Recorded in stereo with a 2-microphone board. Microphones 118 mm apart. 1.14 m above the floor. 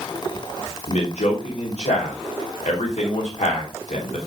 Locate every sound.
0.9 s a man speaking: 80° left, 3 m